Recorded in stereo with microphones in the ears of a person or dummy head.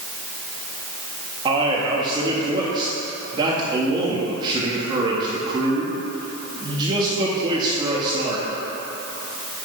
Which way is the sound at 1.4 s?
20° right (ahead or behind).